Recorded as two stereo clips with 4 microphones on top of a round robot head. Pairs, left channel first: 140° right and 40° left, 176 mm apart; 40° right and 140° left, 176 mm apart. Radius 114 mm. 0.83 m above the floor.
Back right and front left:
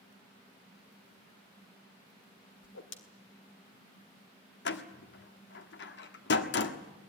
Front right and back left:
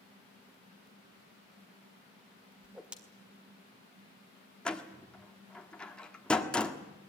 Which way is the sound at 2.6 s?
135° right.